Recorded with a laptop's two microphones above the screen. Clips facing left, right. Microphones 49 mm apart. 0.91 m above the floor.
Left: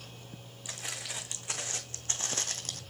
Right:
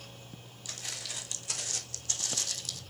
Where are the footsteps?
20° left (ahead or behind), 3.5 m; by 2.8 s 45° left (ahead or behind), 1.8 m.